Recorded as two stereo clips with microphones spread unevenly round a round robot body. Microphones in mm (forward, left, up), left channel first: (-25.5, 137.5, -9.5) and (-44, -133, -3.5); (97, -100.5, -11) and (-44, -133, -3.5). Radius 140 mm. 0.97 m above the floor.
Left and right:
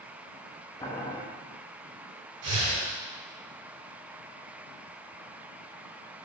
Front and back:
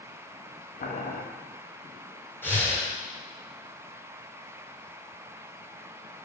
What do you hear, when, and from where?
0.8 s boiling: 10° left, 1.3 m
2.4 s breathing: 65° right, 5 m